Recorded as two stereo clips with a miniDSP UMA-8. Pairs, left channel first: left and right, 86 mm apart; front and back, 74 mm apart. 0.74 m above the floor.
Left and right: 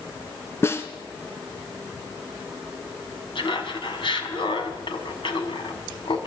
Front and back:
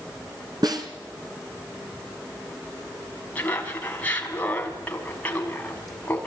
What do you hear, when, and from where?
0.6 s a snare drum: 150° left, 3 m
3.4 s laughter: 70° left, 5.5 m